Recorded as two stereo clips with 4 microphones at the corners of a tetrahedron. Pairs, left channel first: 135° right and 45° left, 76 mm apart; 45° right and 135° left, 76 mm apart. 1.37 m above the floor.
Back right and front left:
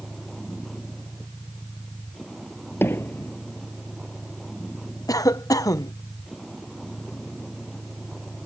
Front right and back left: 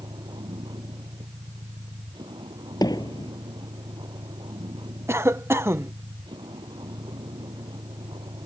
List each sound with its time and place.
0.0 s a vehicle: 135° left
2.8 s hammering: 75° right
5.1 s a cough: 170° right